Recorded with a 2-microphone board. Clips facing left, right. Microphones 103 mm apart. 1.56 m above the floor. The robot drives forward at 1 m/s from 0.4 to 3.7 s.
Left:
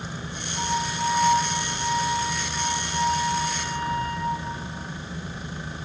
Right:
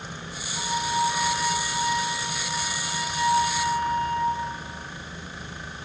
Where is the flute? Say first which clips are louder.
Right 1 dB; 35° left (ahead or behind), 9 m; by 4.5 s 55° left (ahead or behind), 6.5 m.